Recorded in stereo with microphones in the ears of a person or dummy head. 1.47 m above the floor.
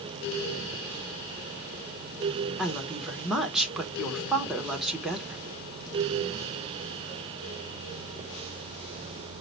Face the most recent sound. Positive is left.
turn(degrees=0)  # may be behind; listen again after turning